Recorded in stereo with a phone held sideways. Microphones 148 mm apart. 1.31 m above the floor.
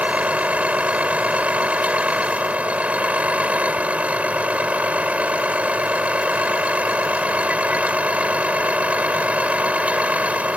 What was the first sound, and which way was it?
A vehicle, 10° right (ahead or behind).